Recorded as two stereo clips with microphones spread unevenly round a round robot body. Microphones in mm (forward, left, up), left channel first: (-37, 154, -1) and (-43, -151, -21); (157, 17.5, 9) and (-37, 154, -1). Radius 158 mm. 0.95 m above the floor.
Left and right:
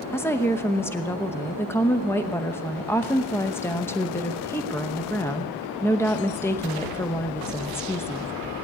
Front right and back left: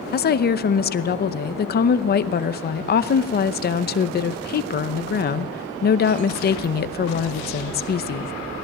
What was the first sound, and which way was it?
A woman speaking, 5° left.